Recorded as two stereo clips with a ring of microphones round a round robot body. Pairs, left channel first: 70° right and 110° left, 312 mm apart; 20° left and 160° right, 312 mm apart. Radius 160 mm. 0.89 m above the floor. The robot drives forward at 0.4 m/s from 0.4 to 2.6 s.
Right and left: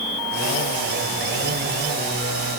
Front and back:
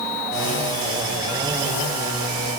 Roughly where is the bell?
No bell in this recording.